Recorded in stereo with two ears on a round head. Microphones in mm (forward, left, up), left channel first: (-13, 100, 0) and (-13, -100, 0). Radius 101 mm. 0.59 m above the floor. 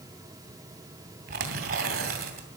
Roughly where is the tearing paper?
Right.